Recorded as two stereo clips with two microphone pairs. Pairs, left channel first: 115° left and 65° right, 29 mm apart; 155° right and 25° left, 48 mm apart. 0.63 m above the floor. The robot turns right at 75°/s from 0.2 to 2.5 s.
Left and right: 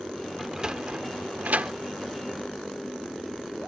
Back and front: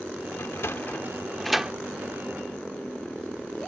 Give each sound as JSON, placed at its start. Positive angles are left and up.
{"t": 0.4, "sound": "a sliding door", "azimuth_deg": -145}